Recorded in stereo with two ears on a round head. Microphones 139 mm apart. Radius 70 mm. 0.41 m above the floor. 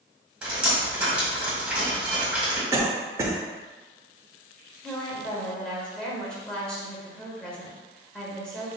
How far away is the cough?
About 0.8 m.